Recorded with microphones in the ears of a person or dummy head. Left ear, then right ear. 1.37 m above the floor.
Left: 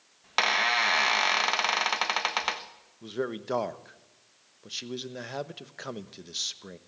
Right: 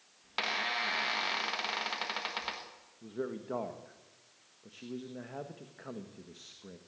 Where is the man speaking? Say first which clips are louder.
Left 6 dB; 80° left, 1.2 m.